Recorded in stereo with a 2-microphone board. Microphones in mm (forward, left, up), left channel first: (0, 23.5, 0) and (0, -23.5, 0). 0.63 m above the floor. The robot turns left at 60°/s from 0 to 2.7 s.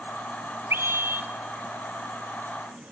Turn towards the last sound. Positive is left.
turn(degrees=150)